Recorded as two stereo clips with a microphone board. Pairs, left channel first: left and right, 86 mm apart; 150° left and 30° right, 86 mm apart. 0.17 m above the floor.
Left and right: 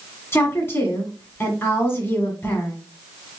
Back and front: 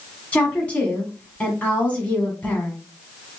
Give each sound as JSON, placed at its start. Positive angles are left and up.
{"t": 0.3, "sound": "a woman speaking", "azimuth_deg": 95, "distance_m": 1.4}